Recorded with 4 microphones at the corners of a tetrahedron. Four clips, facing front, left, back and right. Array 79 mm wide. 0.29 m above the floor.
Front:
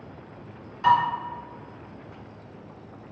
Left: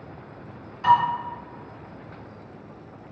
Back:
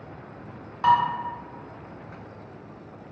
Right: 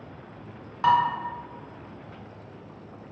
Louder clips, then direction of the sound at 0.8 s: Left 2 dB, even; 130° right.